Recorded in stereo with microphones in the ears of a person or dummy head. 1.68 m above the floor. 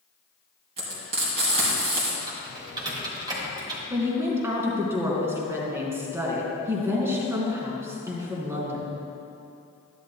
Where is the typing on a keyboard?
25° right (ahead or behind), 2.5 m.